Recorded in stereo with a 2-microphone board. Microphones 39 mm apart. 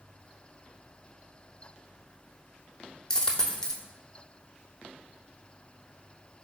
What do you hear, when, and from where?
3.1 s a dropped coin: 15° left (ahead or behind), 0.5 m